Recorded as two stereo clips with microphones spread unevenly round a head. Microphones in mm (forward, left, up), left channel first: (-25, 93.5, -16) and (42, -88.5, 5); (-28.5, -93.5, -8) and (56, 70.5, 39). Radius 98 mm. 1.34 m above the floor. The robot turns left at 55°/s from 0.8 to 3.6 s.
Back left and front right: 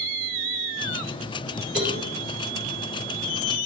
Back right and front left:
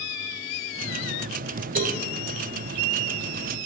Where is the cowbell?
15° left, 4 m; by 2.1 s straight ahead, 4 m.